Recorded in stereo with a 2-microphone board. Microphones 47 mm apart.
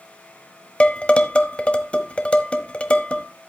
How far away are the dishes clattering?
About 1.0 m.